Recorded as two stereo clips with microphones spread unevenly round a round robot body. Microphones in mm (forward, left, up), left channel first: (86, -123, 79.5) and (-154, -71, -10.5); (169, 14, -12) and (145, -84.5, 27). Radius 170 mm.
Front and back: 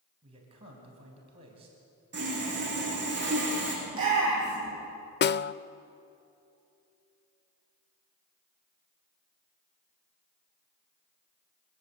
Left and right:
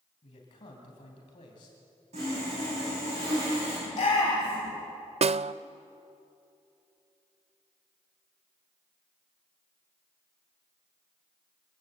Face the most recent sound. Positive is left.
turn(degrees=-70)